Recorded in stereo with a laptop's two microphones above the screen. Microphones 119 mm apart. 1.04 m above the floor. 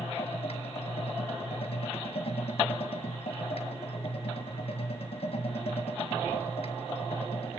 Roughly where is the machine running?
Left.